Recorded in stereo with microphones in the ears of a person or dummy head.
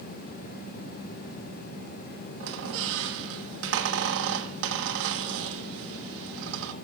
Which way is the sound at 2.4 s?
70° right (ahead or behind).